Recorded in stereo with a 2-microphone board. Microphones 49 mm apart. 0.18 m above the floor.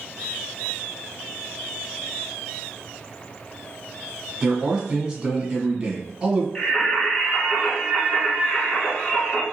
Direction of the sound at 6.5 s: 20° left (ahead or behind).